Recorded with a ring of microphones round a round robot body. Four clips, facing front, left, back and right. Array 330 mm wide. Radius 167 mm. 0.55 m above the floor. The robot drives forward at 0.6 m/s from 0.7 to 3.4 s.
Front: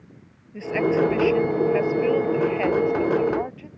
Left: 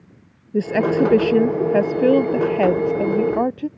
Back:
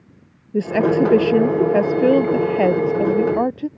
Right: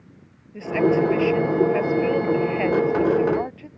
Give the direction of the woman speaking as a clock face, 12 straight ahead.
8 o'clock.